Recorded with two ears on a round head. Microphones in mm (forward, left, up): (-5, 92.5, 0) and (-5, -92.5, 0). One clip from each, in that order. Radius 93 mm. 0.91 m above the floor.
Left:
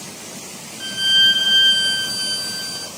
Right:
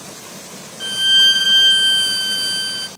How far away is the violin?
About 0.5 m.